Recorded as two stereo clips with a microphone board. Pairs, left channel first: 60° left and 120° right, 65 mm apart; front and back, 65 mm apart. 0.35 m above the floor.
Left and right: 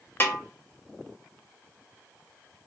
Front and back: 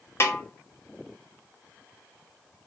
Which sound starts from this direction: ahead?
A snare drum, at 0.2 s.